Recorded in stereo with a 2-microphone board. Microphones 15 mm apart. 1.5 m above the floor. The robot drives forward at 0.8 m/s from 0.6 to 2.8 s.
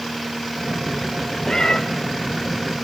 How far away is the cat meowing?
About 1.7 m.